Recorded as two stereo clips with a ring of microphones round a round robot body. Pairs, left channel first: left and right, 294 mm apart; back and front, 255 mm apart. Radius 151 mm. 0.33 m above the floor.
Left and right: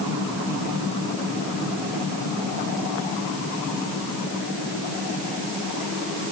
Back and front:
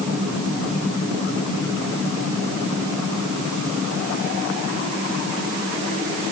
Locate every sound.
Only background noise.